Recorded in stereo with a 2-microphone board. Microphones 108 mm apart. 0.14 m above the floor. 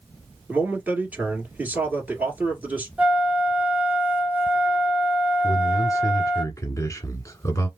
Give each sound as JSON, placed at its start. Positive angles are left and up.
{"t": 0.5, "sound": "a man speaking", "side_deg": -15, "distance_m": 1.9}
{"t": 3.0, "sound": "a flute", "side_deg": -15, "distance_m": 1.4}
{"t": 5.4, "sound": "a man speaking", "side_deg": 30, "distance_m": 1.2}